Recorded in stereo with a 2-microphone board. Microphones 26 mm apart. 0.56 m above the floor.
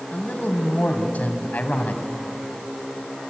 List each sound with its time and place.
0.1 s a man speaking: 70° left (ahead or behind), 3 m